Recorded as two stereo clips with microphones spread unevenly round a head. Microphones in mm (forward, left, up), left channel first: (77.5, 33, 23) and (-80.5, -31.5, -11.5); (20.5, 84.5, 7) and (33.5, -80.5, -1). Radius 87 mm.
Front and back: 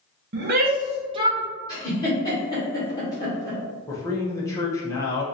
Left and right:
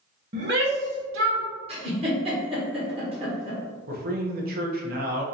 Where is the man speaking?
50° right, 1.0 m.